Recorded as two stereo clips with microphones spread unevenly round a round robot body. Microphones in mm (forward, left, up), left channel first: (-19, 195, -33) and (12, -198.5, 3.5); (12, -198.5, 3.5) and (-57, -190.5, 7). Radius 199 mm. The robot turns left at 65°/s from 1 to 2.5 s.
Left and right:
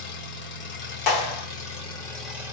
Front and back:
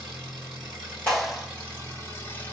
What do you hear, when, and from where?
0.0 s an engine running: 95° left, 1.0 m; by 2.5 s straight ahead, 1.0 m
1.1 s a clap: 75° left, 1.2 m; by 1.5 s 45° left, 1.2 m